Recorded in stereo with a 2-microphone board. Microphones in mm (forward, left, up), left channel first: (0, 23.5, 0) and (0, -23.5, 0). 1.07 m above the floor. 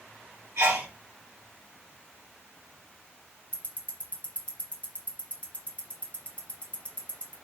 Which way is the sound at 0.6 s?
75° right (ahead or behind).